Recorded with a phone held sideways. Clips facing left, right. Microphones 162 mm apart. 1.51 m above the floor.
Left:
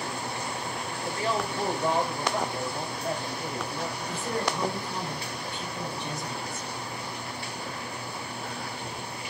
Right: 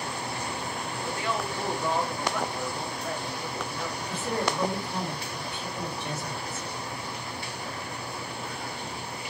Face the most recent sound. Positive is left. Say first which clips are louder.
# right 2 dB
turn(degrees=-5)  # may be behind; listen again after turning